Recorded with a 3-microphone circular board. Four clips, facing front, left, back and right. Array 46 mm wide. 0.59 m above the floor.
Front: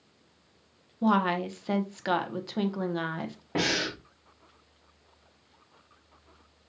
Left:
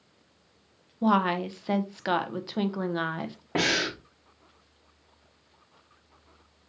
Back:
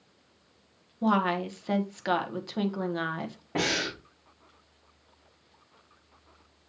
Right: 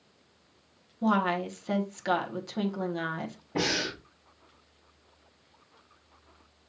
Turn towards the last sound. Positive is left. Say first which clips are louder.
# left 4 dB, even
turn(degrees=85)